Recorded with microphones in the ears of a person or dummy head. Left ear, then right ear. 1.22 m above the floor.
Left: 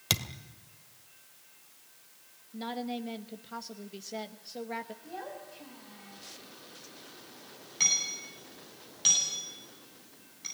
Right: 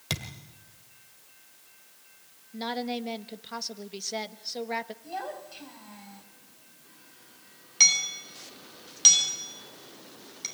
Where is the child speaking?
30° right (ahead or behind), 4.5 m.